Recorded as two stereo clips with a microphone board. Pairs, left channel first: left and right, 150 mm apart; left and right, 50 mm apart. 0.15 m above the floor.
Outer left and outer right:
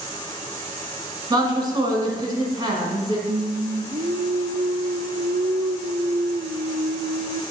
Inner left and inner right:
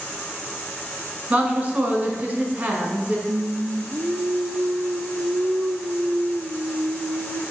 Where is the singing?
65° right (ahead or behind), 0.6 m.